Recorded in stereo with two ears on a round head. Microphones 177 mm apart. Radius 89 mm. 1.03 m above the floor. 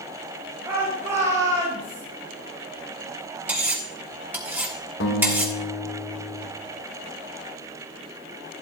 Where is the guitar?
65° left (ahead or behind), 2.0 m.